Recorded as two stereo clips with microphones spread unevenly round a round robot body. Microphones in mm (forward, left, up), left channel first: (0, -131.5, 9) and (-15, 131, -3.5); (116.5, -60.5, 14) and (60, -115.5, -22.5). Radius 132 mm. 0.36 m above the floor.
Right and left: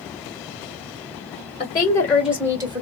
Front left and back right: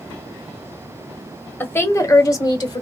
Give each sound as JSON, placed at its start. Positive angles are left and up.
{"t": 1.6, "sound": "a woman speaking", "azimuth_deg": -35, "distance_m": 1.2}